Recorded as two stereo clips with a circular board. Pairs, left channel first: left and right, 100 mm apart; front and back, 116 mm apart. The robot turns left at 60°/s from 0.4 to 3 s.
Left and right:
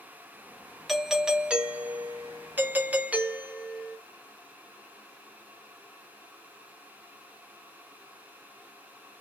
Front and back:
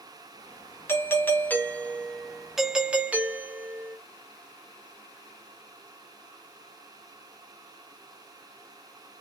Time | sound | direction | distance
0.9 | a doorbell | straight ahead | 0.6 m